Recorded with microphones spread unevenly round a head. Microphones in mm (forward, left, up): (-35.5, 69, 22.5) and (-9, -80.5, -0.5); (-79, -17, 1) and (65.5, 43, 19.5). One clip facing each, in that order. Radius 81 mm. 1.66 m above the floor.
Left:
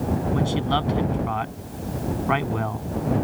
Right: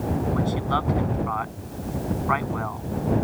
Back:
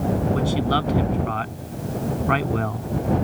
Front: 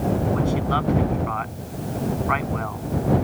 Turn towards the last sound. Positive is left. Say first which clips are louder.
# left 2 dB, back 1 dB
turn(degrees=155)